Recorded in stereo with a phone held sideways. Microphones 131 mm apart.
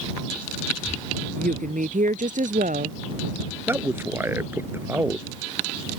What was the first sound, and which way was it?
A woman speaking, 80° right.